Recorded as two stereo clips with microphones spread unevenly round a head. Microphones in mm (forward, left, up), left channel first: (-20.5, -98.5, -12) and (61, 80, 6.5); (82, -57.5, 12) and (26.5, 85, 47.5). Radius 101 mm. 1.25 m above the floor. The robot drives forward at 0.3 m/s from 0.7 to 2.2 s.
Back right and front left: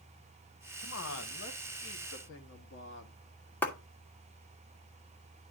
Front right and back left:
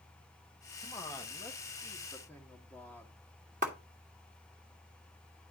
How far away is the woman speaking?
About 1.2 m.